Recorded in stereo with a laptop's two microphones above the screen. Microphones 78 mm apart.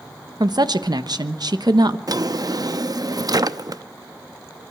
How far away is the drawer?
About 0.6 m.